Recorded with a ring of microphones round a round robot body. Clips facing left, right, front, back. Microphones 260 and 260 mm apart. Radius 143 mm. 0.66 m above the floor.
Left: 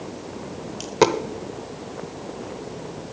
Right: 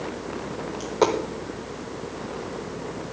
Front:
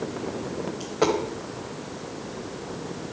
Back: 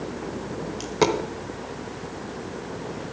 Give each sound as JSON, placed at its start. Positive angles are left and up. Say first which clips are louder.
{"t": 0.8, "sound": "a dropped coin", "louder": "left 3 dB, back 1 dB", "azimuth_deg": 140, "distance_m": 0.9}